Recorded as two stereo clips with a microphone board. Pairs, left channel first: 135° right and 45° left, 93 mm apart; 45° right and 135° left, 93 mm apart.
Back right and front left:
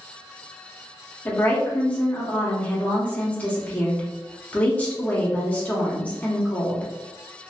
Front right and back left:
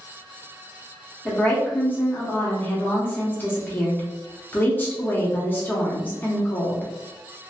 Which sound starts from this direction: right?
A woman speaking, at 1.2 s.